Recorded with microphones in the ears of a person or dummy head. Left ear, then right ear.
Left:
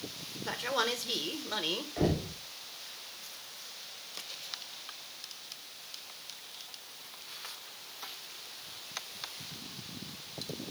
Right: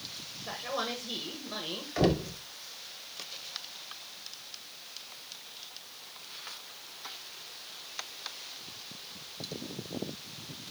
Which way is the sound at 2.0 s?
60° right (ahead or behind).